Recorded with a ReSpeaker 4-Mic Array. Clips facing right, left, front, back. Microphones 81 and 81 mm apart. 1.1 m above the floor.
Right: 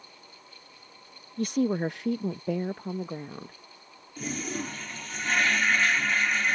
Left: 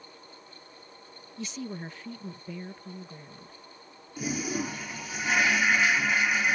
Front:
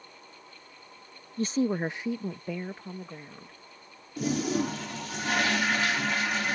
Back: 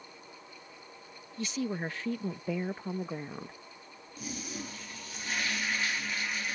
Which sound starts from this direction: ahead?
A toilet flushing, at 4.2 s.